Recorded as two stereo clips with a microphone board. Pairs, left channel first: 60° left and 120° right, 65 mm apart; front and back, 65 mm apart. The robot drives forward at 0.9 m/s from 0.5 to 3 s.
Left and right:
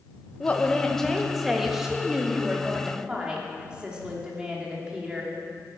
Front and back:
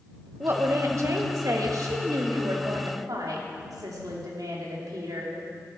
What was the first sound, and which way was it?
A woman speaking, 130° left.